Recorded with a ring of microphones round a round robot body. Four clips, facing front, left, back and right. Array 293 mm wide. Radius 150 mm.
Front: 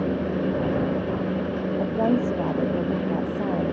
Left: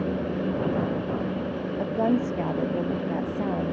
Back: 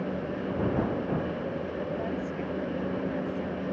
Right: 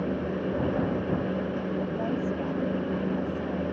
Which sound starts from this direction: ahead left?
A woman speaking, at 1.8 s.